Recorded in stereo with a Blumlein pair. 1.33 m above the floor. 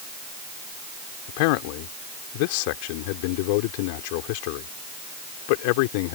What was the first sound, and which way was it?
A man speaking, 45° left.